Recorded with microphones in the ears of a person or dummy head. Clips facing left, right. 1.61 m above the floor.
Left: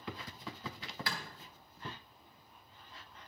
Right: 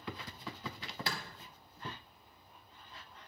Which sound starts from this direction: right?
A clap, at 1.1 s.